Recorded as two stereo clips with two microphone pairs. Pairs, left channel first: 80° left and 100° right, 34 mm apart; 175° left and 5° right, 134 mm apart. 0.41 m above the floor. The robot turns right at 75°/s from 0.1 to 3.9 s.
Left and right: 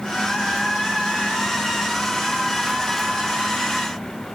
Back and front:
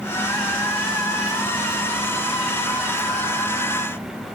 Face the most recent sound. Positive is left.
No sound to turn to.